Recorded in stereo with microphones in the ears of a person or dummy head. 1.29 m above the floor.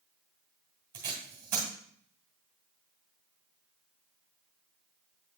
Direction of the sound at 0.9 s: 20° right (ahead or behind).